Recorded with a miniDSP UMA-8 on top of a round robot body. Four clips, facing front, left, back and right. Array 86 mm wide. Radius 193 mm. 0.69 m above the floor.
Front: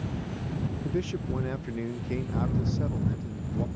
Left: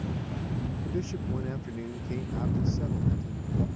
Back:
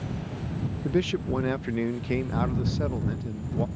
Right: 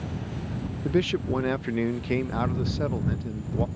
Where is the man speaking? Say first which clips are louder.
Right 12 dB, back 7 dB; 115° right.